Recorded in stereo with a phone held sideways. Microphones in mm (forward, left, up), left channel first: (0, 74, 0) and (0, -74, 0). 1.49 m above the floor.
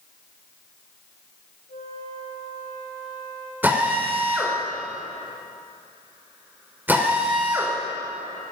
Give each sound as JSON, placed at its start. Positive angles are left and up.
{"t": 1.7, "sound": "a flute", "side_deg": 80, "distance_m": 5.5}
{"t": 3.6, "sound": "a drill", "side_deg": -10, "distance_m": 5.5}